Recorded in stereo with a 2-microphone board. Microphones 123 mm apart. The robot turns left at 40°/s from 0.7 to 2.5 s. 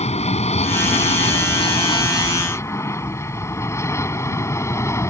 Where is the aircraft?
65° left (ahead or behind); by 5.1 s 25° left (ahead or behind).